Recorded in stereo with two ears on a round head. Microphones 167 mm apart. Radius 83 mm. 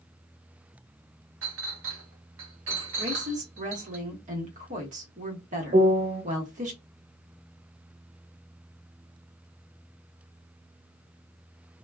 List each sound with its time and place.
1.4 s a clink: 80° right, 1.0 m
3.0 s a woman speaking: 40° right (ahead or behind), 1.1 m
5.7 s a piano: 50° right (ahead or behind), 1.1 m